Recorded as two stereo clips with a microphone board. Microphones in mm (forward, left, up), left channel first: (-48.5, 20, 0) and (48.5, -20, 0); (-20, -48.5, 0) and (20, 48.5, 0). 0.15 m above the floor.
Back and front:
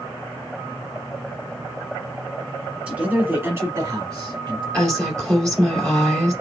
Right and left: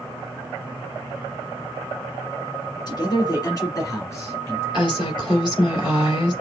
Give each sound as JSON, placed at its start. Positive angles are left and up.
{"t": 2.9, "sound": "a man speaking", "azimuth_deg": -95, "distance_m": 1.8}
{"t": 4.7, "sound": "a woman speaking", "azimuth_deg": -75, "distance_m": 2.0}